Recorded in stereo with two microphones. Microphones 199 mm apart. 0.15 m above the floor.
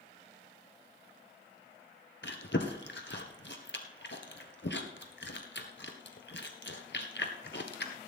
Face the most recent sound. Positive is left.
turn(degrees=65)  # may be behind; listen again after turning